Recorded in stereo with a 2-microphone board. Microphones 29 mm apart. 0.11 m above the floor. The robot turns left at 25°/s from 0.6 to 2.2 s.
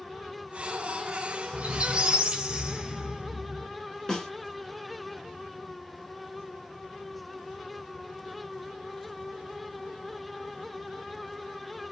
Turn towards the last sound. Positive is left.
turn(degrees=10)  # may be behind; listen again after turning